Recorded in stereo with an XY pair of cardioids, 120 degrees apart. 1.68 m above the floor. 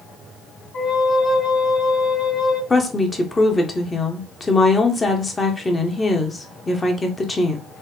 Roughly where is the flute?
Ahead left.